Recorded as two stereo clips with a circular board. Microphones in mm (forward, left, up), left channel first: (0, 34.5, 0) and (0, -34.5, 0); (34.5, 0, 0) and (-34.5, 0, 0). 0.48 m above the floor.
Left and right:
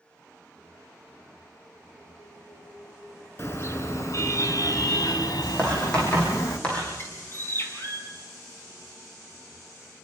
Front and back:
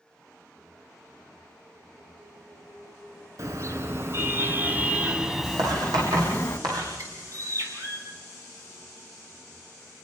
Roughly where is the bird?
Behind left.